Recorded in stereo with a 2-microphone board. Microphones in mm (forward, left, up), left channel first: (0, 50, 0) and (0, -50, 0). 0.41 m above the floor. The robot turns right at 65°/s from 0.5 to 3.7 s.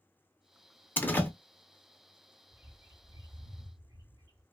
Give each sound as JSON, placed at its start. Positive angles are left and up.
{"t": 1.0, "sound": "a door slam", "side_deg": 20, "distance_m": 0.5}
{"t": 2.5, "sound": "a bird", "azimuth_deg": -160, "distance_m": 0.7}